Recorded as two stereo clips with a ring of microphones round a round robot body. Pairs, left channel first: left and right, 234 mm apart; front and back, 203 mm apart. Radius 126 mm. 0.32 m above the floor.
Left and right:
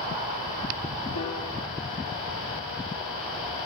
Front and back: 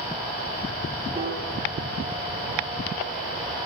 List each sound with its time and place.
1.1 s a piano: 105° left, 7.5 m